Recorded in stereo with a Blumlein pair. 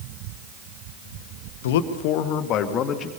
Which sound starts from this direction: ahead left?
A man speaking, at 1.6 s.